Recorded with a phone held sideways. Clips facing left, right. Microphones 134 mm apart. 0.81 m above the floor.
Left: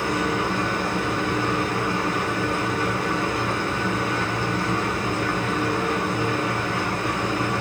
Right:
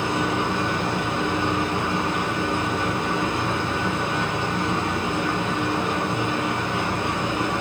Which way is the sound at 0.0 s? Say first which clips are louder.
Even; 25° right (ahead or behind).